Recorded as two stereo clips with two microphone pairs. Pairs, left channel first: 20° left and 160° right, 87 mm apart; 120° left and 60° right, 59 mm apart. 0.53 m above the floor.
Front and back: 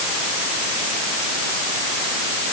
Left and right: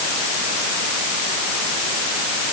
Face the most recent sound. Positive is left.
No sound to turn to.